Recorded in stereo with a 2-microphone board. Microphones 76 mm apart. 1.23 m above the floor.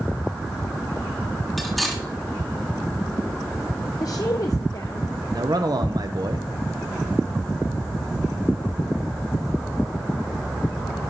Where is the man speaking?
60° right (ahead or behind), 1.0 m.